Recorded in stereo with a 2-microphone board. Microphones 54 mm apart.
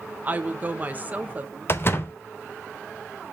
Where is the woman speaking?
30° right (ahead or behind), 1.0 m.